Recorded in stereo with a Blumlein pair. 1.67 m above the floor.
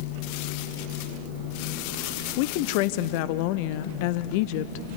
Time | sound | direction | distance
2.4 | a woman speaking | 45° left | 0.9 m